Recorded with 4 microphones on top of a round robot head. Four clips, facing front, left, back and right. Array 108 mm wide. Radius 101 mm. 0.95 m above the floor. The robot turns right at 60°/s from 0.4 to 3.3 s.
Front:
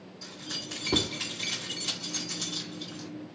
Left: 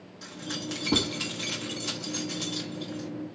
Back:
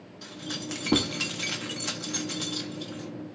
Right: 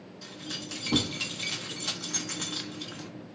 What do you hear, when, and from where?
0.2 s keys jangling: 130° left, 1.2 m; by 3.1 s 70° right, 1.2 m